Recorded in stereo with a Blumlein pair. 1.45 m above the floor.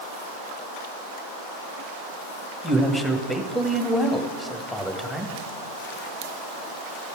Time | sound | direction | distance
2.6 | a man speaking | straight ahead | 1.6 m